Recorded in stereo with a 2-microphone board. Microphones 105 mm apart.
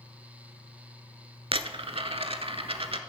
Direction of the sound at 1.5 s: 60° right (ahead or behind).